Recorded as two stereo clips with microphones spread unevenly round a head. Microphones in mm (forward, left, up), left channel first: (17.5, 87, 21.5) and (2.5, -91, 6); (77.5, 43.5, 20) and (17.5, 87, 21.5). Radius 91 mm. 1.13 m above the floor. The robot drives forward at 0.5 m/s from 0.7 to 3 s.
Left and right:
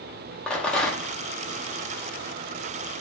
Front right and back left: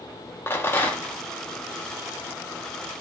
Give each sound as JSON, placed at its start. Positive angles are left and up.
{"t": 0.5, "sound": "a rattle", "azimuth_deg": 10, "distance_m": 0.6}